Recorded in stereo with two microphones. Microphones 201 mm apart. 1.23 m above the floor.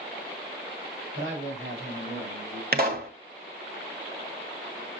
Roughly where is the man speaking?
Right.